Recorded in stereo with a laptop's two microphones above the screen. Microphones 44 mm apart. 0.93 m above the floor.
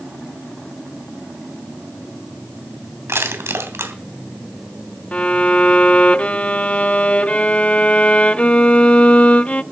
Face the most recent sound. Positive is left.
turn(degrees=30)  # may be behind; listen again after turning